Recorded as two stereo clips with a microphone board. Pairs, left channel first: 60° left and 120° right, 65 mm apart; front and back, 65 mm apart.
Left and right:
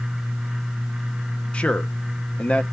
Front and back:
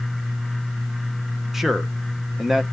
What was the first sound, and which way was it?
A man speaking, 100° left.